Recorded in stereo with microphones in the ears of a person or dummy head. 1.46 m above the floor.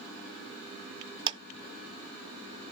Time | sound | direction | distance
1.3 | a clap | 25° right (ahead or behind) | 0.5 m